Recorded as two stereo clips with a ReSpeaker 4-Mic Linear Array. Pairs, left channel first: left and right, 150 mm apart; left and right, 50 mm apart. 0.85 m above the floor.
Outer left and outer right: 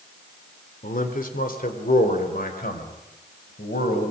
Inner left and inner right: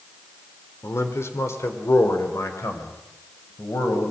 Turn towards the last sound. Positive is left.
turn(degrees=80)